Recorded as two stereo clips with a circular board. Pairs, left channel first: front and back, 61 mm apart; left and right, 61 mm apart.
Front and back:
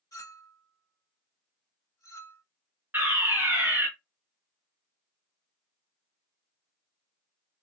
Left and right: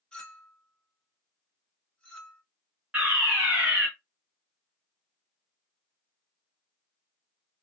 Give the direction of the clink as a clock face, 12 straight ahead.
11 o'clock.